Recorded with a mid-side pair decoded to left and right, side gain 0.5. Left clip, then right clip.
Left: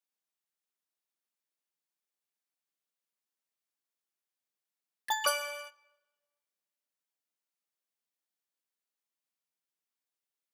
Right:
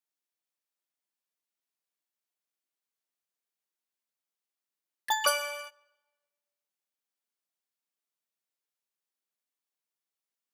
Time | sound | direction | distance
5.1 | an alarm | 15° right | 0.6 m